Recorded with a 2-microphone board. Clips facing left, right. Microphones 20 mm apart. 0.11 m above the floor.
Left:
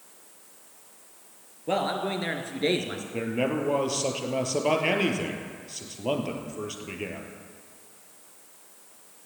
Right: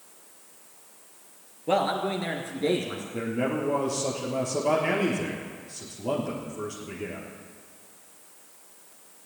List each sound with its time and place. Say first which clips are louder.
1.7 s a man speaking: right 2 dB; 5° right (ahead or behind), 2 m; by 3.0 s 40° left (ahead or behind), 2 m
3.1 s a man speaking: left 1 dB; 35° left (ahead or behind), 3 m